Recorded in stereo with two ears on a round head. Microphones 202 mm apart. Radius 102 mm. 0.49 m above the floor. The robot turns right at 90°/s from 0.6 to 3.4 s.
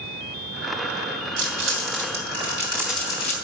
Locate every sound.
1.4 s crumpling: 35° right (ahead or behind), 3 m; by 3.4 s 35° left (ahead or behind), 3 m